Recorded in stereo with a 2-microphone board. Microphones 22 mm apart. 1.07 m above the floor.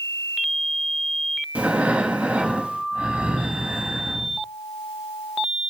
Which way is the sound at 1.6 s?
70° right (ahead or behind).